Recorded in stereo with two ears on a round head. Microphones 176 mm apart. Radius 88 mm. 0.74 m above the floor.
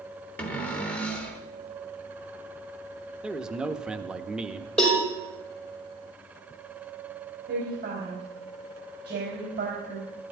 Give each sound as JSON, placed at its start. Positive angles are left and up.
{"t": 0.4, "sound": "a cupboard door", "side_deg": 10, "distance_m": 1.5}
{"t": 3.2, "sound": "a man speaking", "side_deg": -5, "distance_m": 0.8}
{"t": 4.8, "sound": "a cowbell", "side_deg": 5, "distance_m": 5.0}
{"t": 7.5, "sound": "a woman speaking", "side_deg": -60, "distance_m": 4.0}